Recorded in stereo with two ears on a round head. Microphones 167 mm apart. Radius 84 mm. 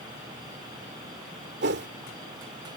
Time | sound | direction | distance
1.6 | a whoosh | 60° right (ahead or behind) | ?